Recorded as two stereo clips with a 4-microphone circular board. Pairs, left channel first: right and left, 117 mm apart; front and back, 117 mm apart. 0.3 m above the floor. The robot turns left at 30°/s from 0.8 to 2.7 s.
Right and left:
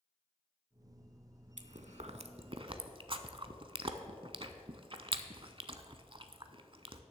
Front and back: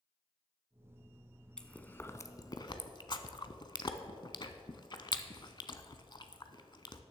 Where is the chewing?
85° left, 0.6 m; by 7.0 s 50° left, 0.6 m.